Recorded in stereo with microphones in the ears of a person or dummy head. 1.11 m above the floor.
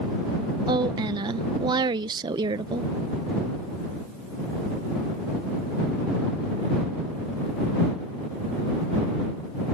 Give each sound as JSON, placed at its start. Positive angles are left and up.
{"t": 0.7, "sound": "a woman speaking", "side_deg": -20}